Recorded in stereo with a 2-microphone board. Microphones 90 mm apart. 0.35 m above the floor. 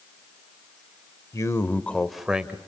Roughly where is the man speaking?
Left.